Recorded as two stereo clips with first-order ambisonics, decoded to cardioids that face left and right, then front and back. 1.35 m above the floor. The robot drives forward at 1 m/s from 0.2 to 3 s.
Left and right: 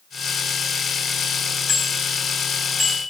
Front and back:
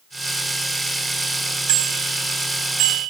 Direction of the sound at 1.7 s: 170° left.